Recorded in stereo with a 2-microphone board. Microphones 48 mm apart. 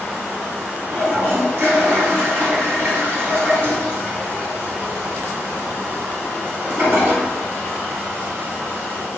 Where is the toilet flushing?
55° right (ahead or behind), 1.4 m.